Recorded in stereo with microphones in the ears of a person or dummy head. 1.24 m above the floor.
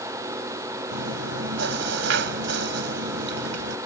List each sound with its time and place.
0.9 s chewing: 70° right (ahead or behind)